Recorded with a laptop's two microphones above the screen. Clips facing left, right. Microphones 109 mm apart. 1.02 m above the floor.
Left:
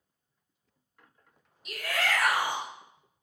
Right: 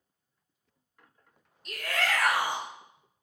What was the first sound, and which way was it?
A shout, 5° left (ahead or behind).